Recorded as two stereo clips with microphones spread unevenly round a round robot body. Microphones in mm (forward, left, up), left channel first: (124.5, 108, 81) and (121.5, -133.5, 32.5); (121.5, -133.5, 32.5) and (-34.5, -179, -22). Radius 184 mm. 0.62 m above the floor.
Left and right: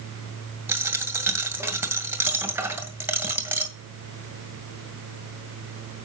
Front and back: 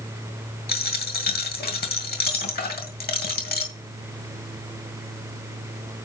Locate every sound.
0.7 s a dropped coin: 10° right, 2 m